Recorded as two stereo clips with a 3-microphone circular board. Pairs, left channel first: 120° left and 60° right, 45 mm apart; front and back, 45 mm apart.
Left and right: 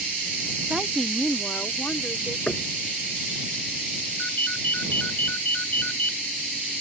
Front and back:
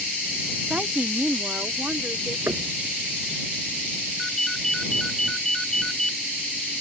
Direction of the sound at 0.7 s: 130° right.